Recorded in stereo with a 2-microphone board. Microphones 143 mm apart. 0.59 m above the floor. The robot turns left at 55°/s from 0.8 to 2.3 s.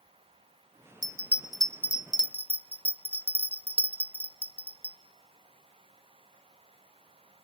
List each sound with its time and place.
1.0 s a bell: 30° right (ahead or behind), 0.6 m; by 5.0 s 40° left (ahead or behind), 0.6 m